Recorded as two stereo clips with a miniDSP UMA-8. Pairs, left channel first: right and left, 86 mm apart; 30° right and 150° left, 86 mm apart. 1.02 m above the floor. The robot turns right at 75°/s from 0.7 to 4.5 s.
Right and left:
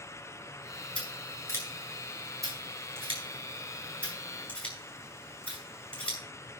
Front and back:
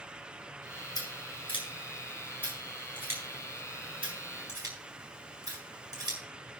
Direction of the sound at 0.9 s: 70° right.